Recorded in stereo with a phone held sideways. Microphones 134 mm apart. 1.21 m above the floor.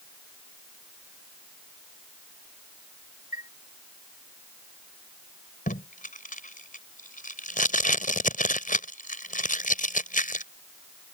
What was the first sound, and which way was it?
A chime, 80° left.